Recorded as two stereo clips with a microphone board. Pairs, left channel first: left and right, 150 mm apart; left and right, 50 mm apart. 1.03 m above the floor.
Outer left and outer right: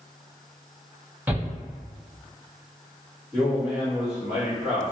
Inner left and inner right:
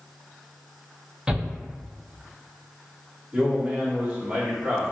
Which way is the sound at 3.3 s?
15° right (ahead or behind).